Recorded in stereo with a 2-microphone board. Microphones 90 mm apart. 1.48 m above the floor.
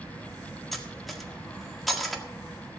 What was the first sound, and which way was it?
Cutlery clinking, centre (ahead or behind).